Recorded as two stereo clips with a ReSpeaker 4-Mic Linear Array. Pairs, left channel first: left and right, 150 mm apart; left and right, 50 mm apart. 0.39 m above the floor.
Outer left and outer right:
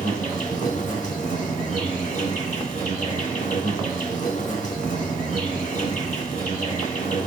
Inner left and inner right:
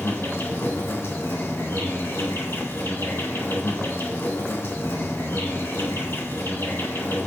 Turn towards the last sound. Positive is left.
turn(degrees=55)  # may be behind; listen again after turning